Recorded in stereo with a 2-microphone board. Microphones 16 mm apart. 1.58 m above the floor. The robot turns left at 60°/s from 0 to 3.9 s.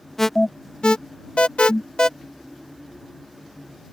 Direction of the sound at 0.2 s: 15° left (ahead or behind).